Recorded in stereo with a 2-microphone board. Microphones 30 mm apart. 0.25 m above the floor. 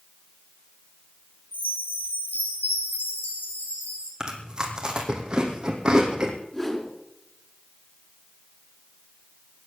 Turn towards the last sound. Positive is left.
turn(degrees=15)  # may be behind; listen again after turning